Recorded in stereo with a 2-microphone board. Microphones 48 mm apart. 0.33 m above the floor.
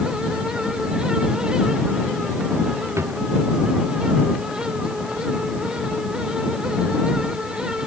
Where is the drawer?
90° right.